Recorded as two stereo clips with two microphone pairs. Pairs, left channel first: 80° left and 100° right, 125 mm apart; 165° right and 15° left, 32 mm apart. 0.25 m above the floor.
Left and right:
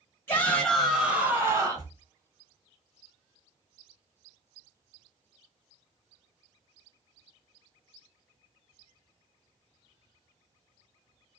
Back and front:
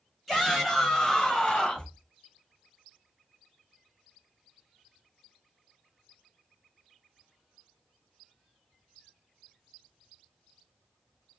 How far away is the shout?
About 1.0 m.